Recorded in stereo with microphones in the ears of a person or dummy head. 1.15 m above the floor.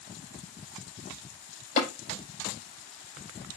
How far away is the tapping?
About 5 m.